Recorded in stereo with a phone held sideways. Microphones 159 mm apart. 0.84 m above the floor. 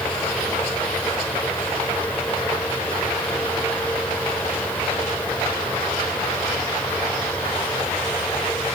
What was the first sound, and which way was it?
A fan, 10° left (ahead or behind).